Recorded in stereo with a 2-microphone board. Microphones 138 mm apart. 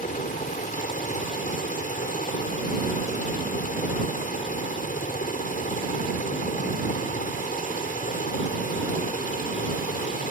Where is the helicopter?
75° left (ahead or behind).